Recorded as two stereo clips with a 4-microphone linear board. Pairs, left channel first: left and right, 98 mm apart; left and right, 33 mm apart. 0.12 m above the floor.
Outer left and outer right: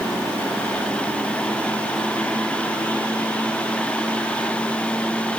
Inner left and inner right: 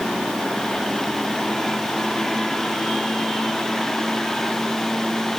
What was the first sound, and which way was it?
Only background noise.